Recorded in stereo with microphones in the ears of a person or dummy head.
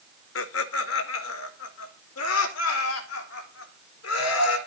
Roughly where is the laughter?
Left.